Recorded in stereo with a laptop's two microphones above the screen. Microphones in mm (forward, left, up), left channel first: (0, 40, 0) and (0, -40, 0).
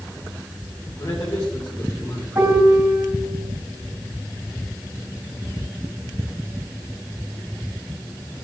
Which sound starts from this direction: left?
A man speaking, at 1.0 s.